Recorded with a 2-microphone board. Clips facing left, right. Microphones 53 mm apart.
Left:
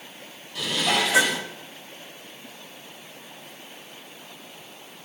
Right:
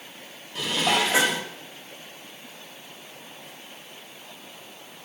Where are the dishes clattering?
35° right (ahead or behind), 4 m.